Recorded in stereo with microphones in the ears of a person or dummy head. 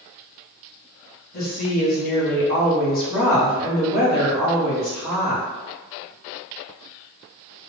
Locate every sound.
1.3 s a woman speaking: 55° left (ahead or behind), 1.3 m